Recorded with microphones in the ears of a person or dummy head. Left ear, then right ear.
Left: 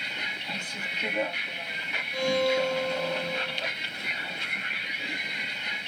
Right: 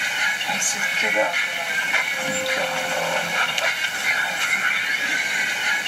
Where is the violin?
80° left.